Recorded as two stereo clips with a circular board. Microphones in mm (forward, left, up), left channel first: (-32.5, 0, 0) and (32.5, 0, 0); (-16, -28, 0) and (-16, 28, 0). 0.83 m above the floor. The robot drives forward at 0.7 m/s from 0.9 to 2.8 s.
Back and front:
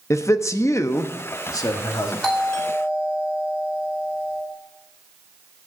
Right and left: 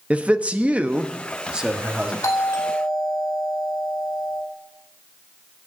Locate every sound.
0.1 s a man speaking: 150° left, 0.8 m; by 2.1 s 170° left, 1.5 m
2.2 s a doorbell: 95° right, 3 m; by 4.4 s 105° right, 3 m